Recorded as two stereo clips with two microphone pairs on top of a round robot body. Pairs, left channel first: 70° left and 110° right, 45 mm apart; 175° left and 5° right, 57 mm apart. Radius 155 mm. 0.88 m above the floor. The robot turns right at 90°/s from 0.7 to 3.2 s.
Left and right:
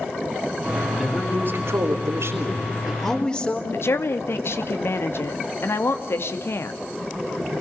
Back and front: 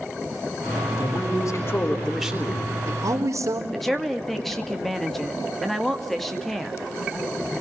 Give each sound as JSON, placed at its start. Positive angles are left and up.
{"t": 1.0, "sound": "a man speaking", "azimuth_deg": 160, "distance_m": 4.0}
{"t": 3.7, "sound": "a woman speaking", "azimuth_deg": 85, "distance_m": 2.5}